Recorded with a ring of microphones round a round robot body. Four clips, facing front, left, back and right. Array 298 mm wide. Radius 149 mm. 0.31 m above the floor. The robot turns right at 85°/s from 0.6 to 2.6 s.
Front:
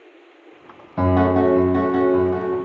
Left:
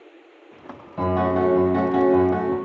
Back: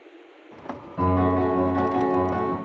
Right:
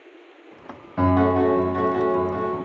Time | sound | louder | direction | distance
1.0 | a piano | right 2 dB, front 5 dB | 20° right | 0.6 m